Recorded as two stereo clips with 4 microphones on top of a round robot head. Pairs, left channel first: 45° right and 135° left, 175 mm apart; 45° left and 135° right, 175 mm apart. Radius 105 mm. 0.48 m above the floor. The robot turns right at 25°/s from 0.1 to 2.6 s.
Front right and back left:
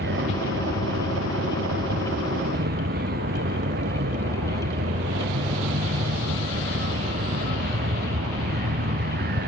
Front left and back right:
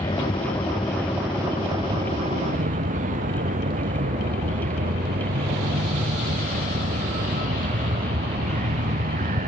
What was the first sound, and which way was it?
A vehicle, 110° left.